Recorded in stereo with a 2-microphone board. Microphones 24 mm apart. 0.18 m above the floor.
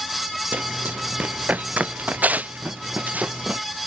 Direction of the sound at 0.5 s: 90° right.